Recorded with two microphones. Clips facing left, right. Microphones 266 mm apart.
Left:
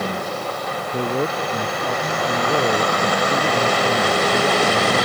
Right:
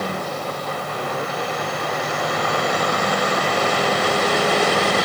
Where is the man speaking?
40° left (ahead or behind).